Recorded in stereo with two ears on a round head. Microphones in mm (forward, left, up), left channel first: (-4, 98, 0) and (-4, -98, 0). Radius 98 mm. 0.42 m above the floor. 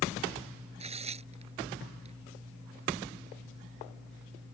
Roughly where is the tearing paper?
Right.